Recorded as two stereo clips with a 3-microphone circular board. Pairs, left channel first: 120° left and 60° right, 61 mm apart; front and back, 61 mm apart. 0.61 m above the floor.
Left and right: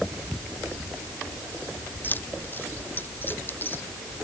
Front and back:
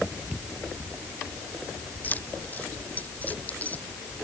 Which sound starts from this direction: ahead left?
Keys jangling, at 2.0 s.